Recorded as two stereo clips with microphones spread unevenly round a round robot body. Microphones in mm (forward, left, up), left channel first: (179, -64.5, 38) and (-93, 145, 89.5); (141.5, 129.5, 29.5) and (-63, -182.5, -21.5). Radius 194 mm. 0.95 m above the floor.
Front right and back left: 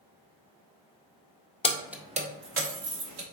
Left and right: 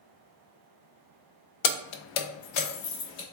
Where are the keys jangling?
35° left, 0.6 m; by 3.2 s 105° left, 1.4 m.